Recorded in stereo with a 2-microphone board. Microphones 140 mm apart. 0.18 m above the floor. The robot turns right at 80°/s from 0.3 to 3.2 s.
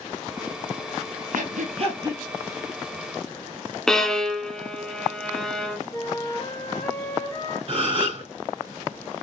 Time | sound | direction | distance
1.3 | breathing | 75° right (ahead or behind) | 2.5 m
3.9 | a violin | 5° left (ahead or behind) | 0.7 m
5.9 | a flute | 30° left (ahead or behind) | 2.5 m
7.7 | a gasp | 40° right (ahead or behind) | 1.6 m